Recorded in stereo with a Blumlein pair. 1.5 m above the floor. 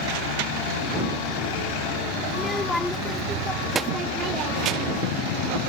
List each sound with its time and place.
2.3 s a child speaking: 15° left; by 5.1 s 40° right